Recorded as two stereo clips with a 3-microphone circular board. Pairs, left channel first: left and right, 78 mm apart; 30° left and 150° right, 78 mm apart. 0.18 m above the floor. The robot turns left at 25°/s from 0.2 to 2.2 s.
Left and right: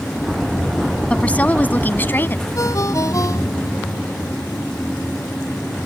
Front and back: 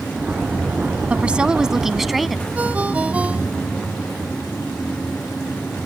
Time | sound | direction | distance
1.1 | a woman speaking | 150° left | ?
2.5 | a ringtone | 135° left | ?